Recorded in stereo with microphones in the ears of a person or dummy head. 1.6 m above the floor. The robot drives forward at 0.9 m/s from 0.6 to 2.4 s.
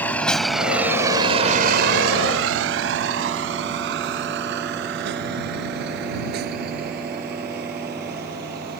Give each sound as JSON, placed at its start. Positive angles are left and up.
{"t": 0.0, "sound": "a vehicle", "side_deg": 5}